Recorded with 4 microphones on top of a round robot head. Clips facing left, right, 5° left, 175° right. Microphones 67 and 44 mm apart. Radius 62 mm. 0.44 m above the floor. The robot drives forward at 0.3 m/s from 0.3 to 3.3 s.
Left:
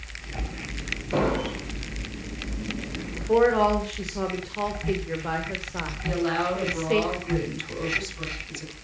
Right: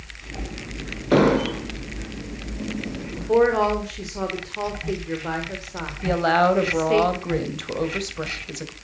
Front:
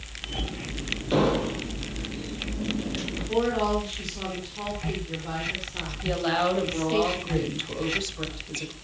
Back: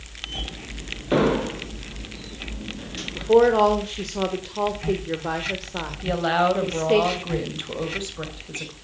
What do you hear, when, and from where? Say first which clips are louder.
1.1 s an explosion: right 8 dB, back 3 dB; 110° right, 2 m; by 1.7 s 115° right, 2 m
3.1 s a woman speaking: right 2 dB, back 10 dB; 175° right, 1.9 m
6.0 s a woman speaking: right 8 dB, back 4 dB; 110° right, 3 m